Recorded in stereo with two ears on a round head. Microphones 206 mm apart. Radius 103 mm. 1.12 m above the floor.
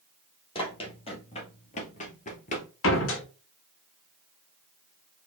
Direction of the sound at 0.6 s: 25° left (ahead or behind).